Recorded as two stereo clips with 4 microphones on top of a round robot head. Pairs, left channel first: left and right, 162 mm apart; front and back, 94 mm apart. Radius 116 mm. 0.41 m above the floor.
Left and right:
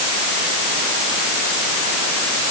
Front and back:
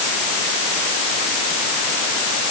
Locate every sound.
Only background noise.